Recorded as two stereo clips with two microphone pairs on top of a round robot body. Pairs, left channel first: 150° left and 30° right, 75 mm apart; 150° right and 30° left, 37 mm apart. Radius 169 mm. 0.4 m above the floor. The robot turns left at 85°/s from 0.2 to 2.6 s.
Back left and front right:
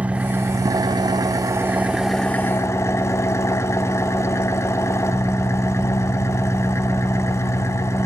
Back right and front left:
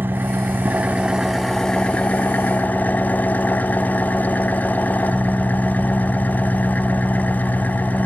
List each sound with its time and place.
0.0 s an engine running: 40° left, 1.1 m; by 8.1 s 165° right, 1.1 m